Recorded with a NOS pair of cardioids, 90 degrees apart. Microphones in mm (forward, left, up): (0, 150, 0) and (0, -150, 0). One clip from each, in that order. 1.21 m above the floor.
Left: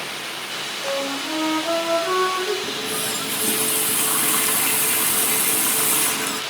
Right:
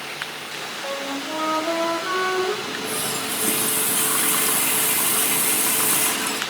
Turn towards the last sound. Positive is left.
turn(degrees=5)